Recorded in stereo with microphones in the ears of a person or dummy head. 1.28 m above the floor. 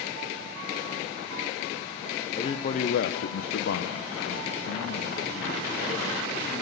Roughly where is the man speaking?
Left.